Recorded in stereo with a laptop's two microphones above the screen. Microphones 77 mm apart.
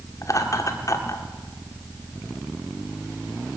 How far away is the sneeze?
I don't hear a sneeze.